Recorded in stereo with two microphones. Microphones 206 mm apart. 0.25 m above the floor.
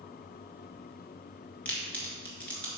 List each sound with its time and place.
1.6 s a crack: 5° left (ahead or behind), 1.6 m